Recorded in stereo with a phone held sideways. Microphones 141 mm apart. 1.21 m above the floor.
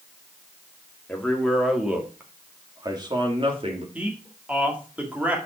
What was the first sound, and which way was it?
A man speaking, 10° left (ahead or behind).